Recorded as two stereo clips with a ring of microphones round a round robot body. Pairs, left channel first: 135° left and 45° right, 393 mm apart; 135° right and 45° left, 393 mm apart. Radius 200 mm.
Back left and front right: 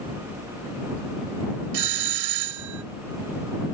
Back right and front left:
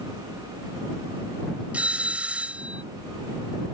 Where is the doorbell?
40° right.